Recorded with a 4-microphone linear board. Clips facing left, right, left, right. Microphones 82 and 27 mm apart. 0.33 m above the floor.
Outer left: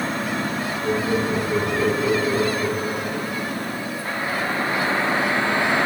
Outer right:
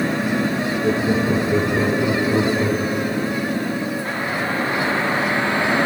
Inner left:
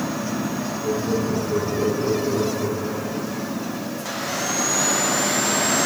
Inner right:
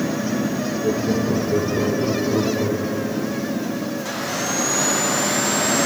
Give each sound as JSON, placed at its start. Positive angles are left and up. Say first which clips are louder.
{"t": 0.8, "sound": "laughter", "louder": "outer right 2 dB, inner right 2 dB", "side_deg": -40, "distance_m": 7.0}